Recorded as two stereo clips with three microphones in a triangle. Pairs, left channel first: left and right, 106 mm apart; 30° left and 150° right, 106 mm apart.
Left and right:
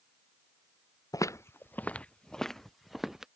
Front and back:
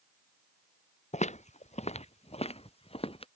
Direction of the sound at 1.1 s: 30° left.